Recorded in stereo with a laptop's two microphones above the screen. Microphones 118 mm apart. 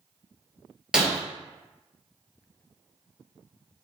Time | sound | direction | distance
0.9 | breaking glass | 5° right (ahead or behind) | 1.3 m